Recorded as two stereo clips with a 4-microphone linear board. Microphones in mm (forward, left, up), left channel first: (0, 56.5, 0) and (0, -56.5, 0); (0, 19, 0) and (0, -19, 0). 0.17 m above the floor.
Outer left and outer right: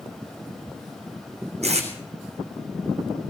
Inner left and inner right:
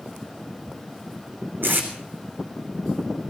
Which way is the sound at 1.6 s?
70° right (ahead or behind).